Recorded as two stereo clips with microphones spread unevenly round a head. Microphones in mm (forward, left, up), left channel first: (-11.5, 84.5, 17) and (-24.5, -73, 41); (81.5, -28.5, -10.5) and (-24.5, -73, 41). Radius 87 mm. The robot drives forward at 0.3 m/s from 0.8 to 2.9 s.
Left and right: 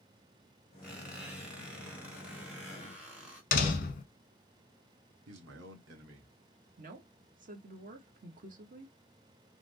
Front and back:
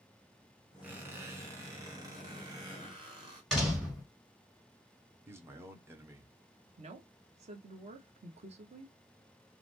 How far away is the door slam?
About 1.0 m.